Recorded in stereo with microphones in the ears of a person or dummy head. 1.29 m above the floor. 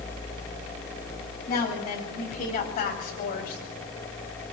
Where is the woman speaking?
35° left (ahead or behind), 9 m; by 3.6 s 45° left (ahead or behind), 6.5 m.